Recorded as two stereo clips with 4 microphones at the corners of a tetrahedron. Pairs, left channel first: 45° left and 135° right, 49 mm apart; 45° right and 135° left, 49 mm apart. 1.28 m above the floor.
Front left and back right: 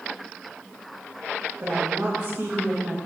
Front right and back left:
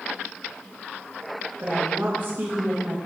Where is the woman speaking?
175° right, 1.5 m.